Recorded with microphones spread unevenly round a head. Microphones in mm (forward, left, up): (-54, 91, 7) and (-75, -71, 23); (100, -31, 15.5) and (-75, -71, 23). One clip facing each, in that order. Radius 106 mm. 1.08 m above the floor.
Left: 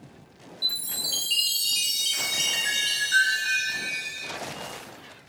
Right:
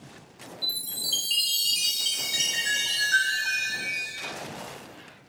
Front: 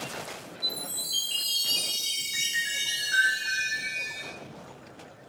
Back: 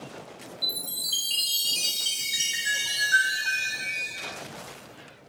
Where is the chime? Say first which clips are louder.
Left 1 dB, front 2 dB; 170° left, 0.6 m.